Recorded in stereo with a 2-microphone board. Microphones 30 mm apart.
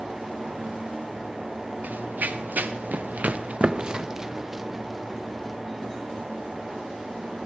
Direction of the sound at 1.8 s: 70° right (ahead or behind).